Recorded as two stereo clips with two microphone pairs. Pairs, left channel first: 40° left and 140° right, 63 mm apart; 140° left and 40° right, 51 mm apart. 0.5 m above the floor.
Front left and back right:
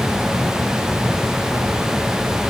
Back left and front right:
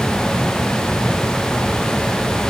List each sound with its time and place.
Only background noise.